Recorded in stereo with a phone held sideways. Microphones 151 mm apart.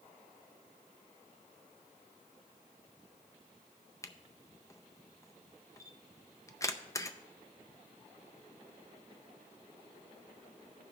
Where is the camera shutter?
20° left (ahead or behind), 0.5 m.